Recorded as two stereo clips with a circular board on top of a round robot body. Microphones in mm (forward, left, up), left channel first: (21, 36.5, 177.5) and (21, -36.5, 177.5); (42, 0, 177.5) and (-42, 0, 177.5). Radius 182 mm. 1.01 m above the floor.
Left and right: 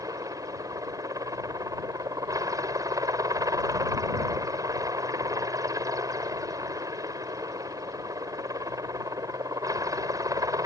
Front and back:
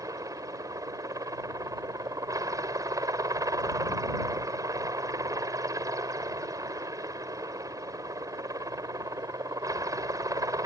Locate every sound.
0.0 s a helicopter: 130° right